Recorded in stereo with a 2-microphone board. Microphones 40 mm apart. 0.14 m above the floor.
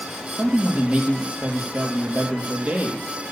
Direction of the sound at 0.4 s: 30° right (ahead or behind).